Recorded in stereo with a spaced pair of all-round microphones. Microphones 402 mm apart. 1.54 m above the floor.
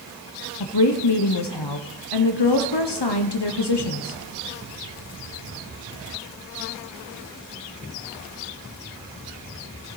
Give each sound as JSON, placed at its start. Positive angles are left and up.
{"t": 0.6, "sound": "a woman speaking", "side_deg": 75, "distance_m": 0.7}